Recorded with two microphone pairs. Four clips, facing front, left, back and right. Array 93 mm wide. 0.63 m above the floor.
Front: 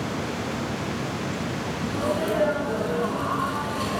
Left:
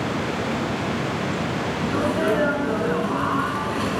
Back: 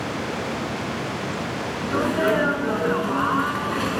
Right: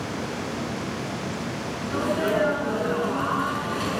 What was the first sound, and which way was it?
A sneeze, 165° left.